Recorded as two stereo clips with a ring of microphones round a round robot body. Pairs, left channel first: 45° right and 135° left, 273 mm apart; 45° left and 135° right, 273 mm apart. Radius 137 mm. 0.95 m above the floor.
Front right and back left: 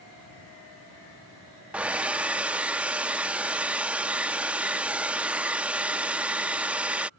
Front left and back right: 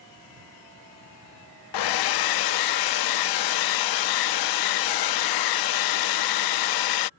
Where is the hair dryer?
50° left.